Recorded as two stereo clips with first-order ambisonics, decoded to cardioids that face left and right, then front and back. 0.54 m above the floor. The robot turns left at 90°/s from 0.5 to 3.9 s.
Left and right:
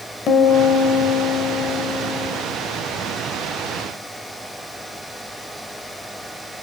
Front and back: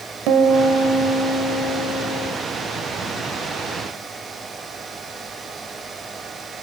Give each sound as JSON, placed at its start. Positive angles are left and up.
{"t": 0.3, "sound": "a piano", "azimuth_deg": 145, "distance_m": 1.1}